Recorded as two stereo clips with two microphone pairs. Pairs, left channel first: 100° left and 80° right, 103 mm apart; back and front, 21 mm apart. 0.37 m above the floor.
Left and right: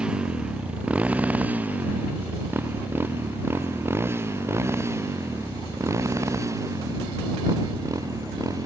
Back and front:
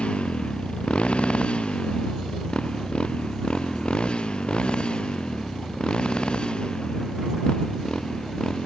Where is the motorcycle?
160° right; by 8.7 s 135° right.